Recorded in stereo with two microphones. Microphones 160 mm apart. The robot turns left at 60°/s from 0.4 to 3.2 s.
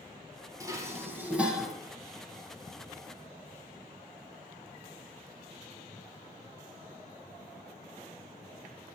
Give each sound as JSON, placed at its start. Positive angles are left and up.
{"t": 0.6, "sound": "dishes clattering", "side_deg": -20, "distance_m": 0.9}